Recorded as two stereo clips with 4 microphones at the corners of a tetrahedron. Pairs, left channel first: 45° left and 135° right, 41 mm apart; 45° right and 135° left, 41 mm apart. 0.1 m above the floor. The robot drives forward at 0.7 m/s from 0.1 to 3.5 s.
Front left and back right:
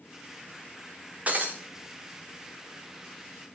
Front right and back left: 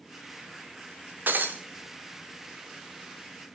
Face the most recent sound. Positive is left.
turn(degrees=175)